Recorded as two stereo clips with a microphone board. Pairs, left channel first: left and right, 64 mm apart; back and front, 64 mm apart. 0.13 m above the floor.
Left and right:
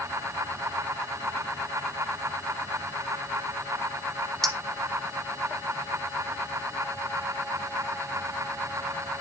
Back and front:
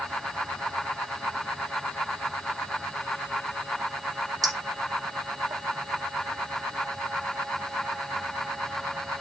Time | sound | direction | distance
4.4 | a clink | 10° left | 3.5 m